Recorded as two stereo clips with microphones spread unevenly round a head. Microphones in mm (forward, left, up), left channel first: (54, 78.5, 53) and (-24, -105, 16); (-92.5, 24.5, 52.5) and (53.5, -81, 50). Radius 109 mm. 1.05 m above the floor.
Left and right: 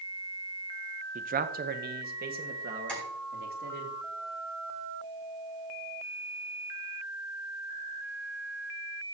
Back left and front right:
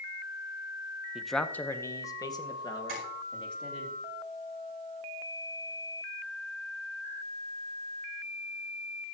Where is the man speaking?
120° right, 0.7 m; by 3.9 s 155° right, 3 m.